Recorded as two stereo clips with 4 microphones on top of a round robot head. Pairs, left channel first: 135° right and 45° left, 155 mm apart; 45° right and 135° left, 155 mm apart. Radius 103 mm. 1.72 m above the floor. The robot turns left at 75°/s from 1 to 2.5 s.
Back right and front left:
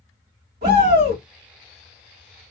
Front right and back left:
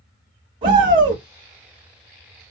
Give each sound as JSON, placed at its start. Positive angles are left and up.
{"t": 0.6, "sound": "a shout", "azimuth_deg": 75, "distance_m": 1.7}